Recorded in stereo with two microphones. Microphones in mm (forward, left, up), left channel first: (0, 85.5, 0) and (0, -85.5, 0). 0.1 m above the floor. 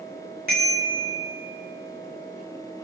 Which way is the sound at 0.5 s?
65° right (ahead or behind).